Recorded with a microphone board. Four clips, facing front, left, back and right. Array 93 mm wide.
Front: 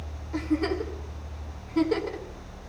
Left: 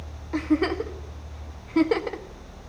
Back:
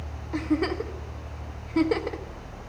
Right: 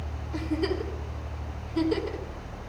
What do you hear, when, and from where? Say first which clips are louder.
0.3 s a giggle: left 5 dB, back 1 dB; 115° left, 1.6 m